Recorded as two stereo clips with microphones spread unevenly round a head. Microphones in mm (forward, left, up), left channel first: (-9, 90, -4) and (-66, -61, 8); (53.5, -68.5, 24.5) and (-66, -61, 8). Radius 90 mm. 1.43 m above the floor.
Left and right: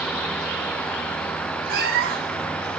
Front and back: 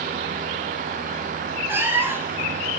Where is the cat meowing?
110° right, 1.7 m.